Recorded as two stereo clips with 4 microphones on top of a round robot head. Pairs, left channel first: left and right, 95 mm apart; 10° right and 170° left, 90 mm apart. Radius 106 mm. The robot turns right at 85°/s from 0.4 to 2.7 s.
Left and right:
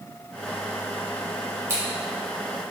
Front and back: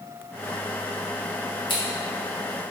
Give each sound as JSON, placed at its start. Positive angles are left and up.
{"t": 1.7, "sound": "scissors", "azimuth_deg": -35, "distance_m": 1.6}